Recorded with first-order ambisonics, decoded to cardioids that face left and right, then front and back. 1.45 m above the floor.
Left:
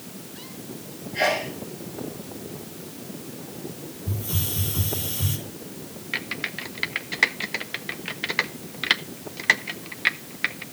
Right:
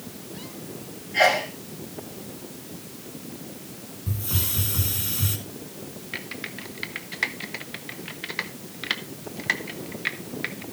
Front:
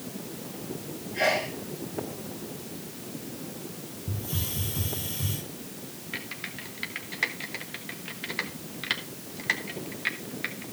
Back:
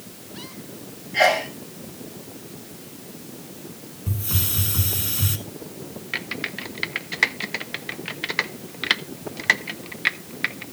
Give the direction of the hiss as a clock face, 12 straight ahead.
5 o'clock.